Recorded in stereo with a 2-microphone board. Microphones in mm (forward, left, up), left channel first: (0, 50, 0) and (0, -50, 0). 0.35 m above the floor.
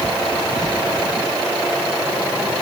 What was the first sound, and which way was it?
Only background noise.